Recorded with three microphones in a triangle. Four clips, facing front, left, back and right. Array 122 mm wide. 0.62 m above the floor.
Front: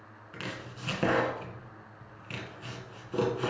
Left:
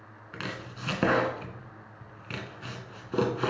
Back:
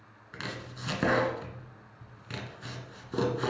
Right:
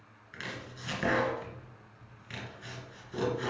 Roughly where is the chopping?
Left.